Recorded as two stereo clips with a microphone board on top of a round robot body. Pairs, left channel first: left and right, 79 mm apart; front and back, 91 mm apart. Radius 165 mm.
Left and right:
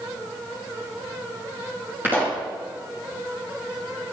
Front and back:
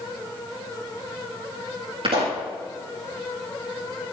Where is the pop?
155° right, 6 m.